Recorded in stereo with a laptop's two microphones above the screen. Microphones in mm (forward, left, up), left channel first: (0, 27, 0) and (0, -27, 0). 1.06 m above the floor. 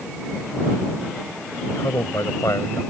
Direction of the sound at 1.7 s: 85° left.